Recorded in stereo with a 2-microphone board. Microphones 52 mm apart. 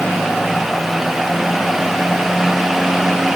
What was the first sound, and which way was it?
Only background noise.